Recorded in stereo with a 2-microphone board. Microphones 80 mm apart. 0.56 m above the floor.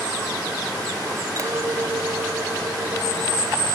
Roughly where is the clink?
Right.